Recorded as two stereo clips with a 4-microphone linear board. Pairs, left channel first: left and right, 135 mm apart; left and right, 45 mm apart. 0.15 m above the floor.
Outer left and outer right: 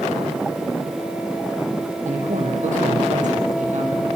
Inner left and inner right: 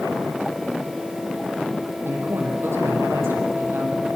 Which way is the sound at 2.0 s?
75° right (ahead or behind).